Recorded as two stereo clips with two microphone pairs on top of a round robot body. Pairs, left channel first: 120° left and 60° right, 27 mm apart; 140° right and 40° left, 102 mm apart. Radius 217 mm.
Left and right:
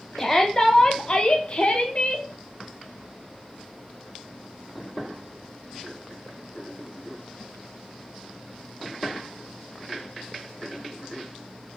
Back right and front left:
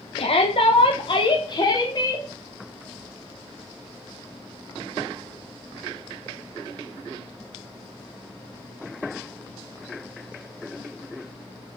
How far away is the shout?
About 1.7 m.